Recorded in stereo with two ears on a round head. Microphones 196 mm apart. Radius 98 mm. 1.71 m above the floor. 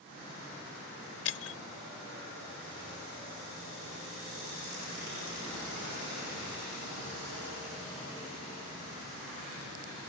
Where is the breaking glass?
75° left (ahead or behind).